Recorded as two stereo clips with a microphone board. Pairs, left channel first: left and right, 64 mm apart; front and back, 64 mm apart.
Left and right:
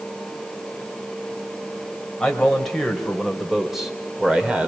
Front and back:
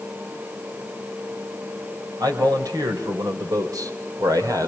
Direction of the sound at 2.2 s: 170° left.